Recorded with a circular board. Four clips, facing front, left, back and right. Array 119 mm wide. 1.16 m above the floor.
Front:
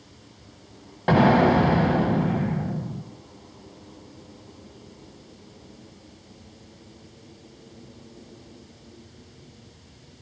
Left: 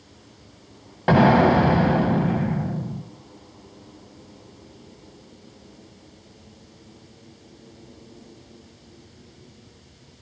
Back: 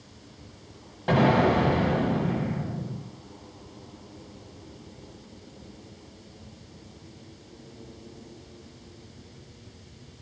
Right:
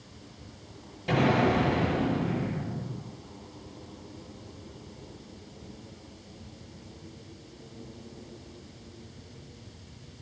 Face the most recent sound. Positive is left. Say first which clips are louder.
# left 9 dB, front 4 dB
turn(degrees=65)